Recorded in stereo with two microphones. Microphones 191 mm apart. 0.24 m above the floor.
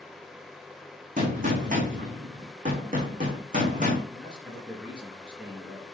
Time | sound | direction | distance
1.2 | a gunshot | 45° right (ahead or behind) | 4.5 m
4.1 | a man speaking | 5° right (ahead or behind) | 4 m